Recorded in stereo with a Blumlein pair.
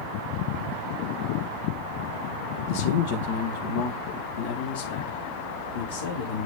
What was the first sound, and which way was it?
A man speaking, 50° left.